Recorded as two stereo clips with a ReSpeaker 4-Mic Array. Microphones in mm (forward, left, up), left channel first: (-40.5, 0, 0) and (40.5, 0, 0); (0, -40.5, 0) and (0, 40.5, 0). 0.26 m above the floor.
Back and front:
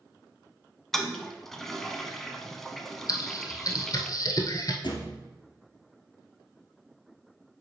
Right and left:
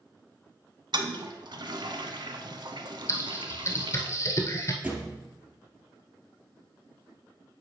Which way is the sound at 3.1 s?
140° right.